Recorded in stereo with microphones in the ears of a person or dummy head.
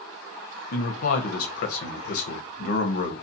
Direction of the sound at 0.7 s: 50° left (ahead or behind).